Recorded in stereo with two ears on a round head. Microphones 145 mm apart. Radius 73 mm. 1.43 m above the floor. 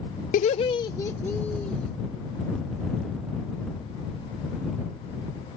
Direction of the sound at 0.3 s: 55° left (ahead or behind).